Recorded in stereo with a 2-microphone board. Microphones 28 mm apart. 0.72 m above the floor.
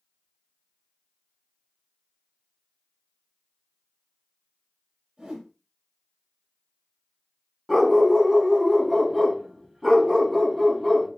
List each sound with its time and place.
5.2 s a whoosh: 45° right (ahead or behind), 2 m
7.7 s a dog barking: 15° right (ahead or behind), 1.3 m